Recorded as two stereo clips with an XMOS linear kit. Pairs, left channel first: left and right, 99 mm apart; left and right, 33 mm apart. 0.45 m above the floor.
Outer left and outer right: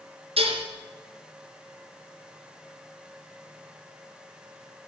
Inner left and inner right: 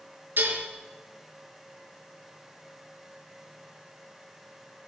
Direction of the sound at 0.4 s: 65° right (ahead or behind).